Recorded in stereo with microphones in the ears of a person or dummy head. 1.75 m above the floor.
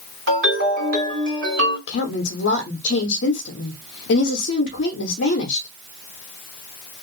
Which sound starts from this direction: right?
A ringtone, at 0.3 s.